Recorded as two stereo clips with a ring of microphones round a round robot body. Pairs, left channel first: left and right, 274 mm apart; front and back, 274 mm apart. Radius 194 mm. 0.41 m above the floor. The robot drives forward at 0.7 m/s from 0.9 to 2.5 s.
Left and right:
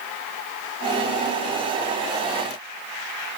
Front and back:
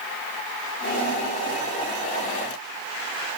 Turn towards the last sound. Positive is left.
No sound to turn to.